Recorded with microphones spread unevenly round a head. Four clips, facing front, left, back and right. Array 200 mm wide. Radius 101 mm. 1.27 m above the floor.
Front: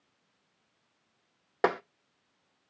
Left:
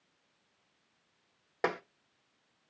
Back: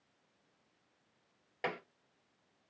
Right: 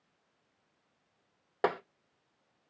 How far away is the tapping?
About 0.5 m.